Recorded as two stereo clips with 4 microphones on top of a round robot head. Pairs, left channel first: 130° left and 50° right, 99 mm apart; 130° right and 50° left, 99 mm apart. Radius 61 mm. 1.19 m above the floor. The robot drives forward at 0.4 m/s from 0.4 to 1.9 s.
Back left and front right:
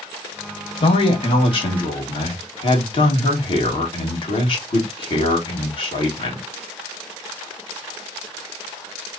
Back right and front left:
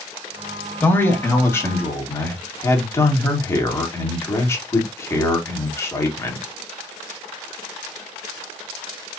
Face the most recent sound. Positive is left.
turn(degrees=165)